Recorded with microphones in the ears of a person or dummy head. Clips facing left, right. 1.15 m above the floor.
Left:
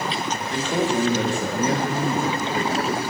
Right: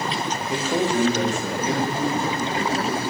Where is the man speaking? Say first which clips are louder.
Even; 15° right (ahead or behind), 0.7 m; by 3.0 s 65° left (ahead or behind), 1.3 m.